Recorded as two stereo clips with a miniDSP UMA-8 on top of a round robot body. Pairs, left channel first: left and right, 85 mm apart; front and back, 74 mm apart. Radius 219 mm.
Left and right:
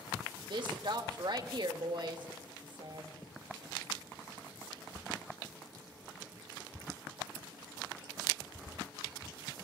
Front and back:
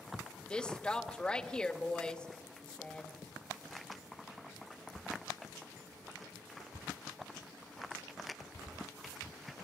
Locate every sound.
0.5 s a woman speaking: 75° right, 1.8 m